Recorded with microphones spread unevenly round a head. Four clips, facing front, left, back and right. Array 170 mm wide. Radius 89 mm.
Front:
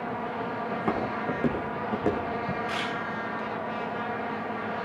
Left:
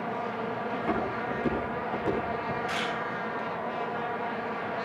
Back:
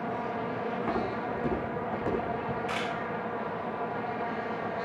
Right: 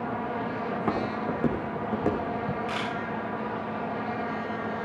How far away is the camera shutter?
About 4.5 m.